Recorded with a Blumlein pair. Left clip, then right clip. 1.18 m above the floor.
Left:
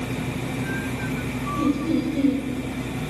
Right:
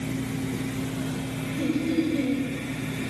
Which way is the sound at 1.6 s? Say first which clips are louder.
Left 2 dB; 5° left.